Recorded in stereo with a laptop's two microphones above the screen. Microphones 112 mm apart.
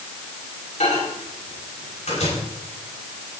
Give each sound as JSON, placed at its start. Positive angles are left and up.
{"t": 0.8, "sound": "a microwave", "side_deg": 85, "distance_m": 6.0}